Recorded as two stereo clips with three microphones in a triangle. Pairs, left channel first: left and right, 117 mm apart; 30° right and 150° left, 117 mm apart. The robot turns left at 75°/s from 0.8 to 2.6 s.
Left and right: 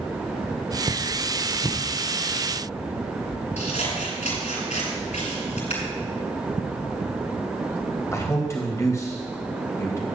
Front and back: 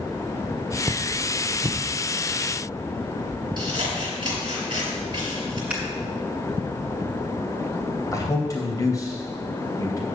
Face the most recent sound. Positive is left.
turn(degrees=25)